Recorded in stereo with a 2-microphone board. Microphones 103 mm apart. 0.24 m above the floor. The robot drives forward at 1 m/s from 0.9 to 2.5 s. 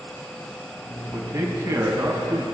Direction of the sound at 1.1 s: 35° right (ahead or behind).